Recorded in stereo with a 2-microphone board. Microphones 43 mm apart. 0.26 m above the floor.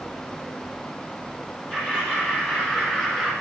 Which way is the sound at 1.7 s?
35° left (ahead or behind).